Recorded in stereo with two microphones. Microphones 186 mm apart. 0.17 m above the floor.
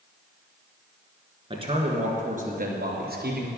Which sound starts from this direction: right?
A man speaking, at 1.5 s.